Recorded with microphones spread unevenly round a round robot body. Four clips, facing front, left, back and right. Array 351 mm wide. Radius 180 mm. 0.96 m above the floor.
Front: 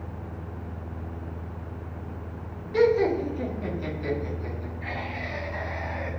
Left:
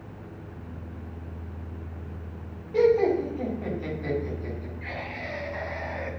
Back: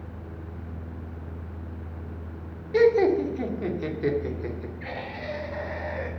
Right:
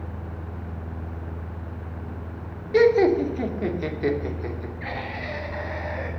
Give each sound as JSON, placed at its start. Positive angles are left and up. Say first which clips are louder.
{"t": 2.7, "sound": "laughter", "louder": "right 4 dB, back 2 dB", "azimuth_deg": -105, "distance_m": 2.5}